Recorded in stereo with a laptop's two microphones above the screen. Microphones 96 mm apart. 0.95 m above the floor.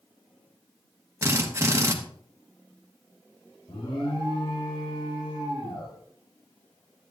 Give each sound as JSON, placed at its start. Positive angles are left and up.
{"t": 1.2, "sound": "a drill", "side_deg": -30, "distance_m": 1.1}
{"t": 3.7, "sound": "an alarm", "side_deg": 85, "distance_m": 4.0}